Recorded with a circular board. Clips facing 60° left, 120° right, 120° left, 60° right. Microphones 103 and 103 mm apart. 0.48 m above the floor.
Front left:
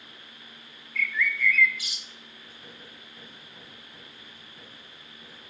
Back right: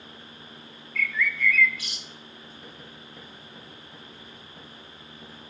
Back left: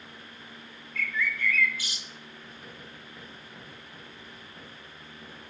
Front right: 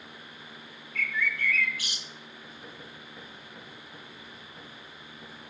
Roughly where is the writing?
Behind right.